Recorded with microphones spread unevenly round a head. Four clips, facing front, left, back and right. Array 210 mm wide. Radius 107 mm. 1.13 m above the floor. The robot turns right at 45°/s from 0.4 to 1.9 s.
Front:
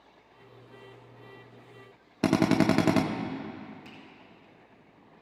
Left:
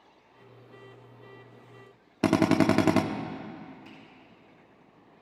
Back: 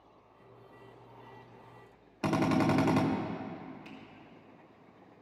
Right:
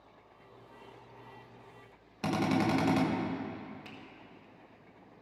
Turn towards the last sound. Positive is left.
turn(degrees=-80)